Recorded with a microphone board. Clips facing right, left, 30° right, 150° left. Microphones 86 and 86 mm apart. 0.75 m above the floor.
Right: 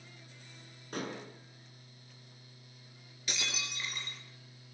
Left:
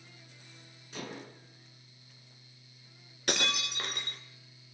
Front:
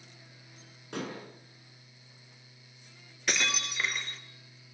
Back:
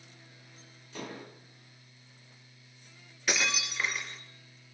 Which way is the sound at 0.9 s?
55° right.